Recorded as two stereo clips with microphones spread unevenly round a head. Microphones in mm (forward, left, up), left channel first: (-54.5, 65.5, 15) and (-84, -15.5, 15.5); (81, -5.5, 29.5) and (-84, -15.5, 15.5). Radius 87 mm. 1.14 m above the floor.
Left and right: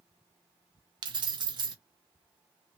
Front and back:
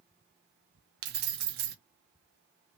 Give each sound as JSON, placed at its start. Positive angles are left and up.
{"t": 1.0, "sound": "keys jangling", "azimuth_deg": -145, "distance_m": 0.7}